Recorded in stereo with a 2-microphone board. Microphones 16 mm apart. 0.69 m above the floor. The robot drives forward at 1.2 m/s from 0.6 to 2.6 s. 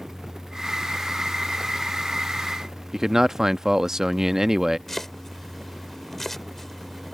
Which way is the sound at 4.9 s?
15° left (ahead or behind).